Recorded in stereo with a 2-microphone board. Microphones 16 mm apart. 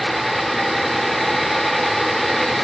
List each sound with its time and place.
Only background noise.